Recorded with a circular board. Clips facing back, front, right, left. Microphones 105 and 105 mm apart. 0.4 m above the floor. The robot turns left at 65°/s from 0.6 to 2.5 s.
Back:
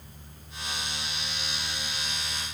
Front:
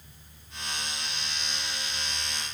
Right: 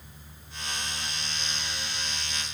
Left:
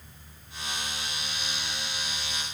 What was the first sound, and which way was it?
Only background noise.